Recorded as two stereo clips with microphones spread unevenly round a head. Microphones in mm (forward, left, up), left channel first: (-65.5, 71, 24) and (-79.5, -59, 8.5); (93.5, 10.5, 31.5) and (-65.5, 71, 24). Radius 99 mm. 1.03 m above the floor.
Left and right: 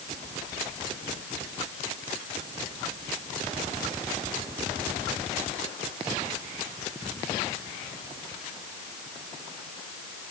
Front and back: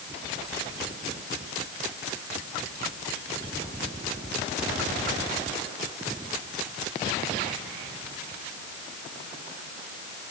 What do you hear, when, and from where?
Only background noise.